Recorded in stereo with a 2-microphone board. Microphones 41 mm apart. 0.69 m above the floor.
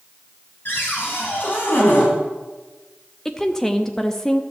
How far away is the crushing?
I don't hear crushing.